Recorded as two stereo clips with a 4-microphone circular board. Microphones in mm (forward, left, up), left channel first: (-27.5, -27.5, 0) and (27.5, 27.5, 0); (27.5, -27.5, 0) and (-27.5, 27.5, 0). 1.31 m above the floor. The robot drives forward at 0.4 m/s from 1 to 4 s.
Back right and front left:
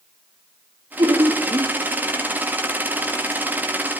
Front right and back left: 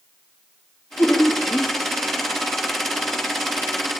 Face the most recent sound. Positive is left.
turn(degrees=45)